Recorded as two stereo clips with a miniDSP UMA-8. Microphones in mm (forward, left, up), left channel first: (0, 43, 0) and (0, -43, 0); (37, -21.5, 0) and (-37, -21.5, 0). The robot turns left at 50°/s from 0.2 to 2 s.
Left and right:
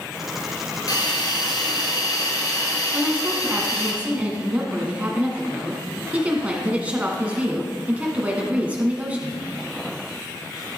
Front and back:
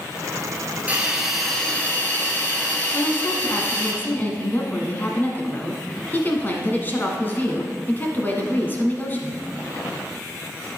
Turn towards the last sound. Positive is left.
turn(degrees=-35)